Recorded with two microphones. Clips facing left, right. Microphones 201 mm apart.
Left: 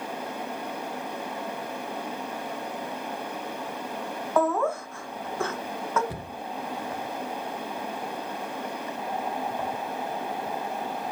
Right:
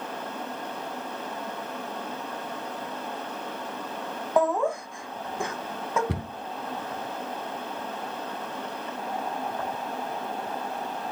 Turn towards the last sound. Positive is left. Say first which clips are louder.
# right 4 dB
turn(degrees=-75)  # may be behind; listen again after turning